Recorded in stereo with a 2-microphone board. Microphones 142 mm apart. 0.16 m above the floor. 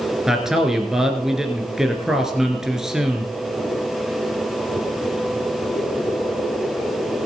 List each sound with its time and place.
0.3 s a man speaking: 5° right (ahead or behind), 2 m